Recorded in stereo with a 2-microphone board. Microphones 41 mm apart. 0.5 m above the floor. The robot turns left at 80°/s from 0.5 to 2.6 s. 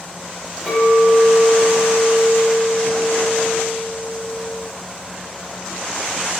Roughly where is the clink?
Behind.